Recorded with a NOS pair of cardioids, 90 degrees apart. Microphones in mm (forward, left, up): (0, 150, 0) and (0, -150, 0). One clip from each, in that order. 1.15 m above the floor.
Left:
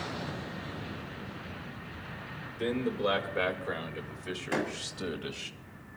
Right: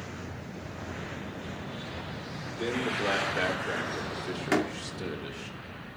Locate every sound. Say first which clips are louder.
2.6 s a man speaking: right 1 dB; 5° right, 4.5 m; by 5.5 s 20° left, 2.0 m
4.5 s a door slam: right 4 dB; 65° right, 2.5 m